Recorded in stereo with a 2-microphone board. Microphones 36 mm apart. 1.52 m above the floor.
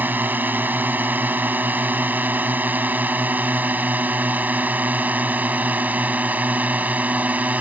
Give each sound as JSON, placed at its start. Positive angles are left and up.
{"t": 0.0, "sound": "a drone", "side_deg": -55}